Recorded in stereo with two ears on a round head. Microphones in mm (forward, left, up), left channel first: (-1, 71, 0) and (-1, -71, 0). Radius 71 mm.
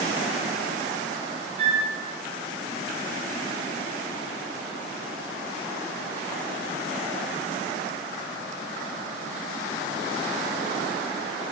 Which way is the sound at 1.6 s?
40° right (ahead or behind).